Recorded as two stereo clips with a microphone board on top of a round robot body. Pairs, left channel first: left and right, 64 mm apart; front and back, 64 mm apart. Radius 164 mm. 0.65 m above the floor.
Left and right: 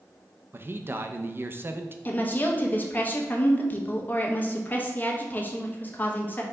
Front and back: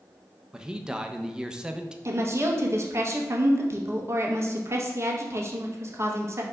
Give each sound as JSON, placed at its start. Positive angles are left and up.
{"t": 0.5, "sound": "a man speaking", "azimuth_deg": -110, "distance_m": 0.6}
{"t": 2.0, "sound": "a woman speaking", "azimuth_deg": 150, "distance_m": 0.8}